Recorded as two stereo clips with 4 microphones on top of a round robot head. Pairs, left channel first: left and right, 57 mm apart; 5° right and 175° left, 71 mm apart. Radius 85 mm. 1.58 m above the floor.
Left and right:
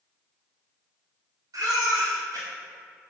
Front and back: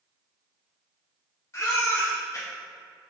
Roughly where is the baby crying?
Ahead right.